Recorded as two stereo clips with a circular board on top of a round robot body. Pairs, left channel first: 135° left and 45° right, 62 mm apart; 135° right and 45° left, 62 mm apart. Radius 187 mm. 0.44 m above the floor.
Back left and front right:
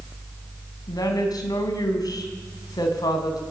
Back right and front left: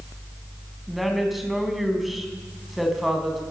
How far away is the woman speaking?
About 4.5 m.